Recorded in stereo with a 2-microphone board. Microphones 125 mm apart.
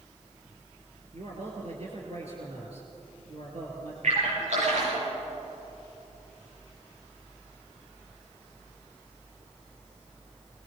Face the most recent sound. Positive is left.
turn(degrees=-65)  # may be behind; listen again after turning